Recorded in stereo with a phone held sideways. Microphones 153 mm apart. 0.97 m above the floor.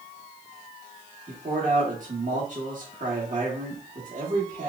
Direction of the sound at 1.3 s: 55° right (ahead or behind).